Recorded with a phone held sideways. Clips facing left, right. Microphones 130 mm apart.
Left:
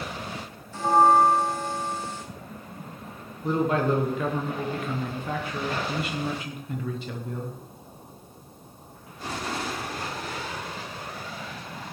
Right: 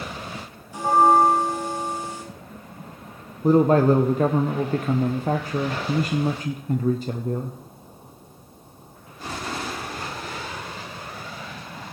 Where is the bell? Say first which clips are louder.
Right 2 dB; 15° right (ahead or behind), 2 m.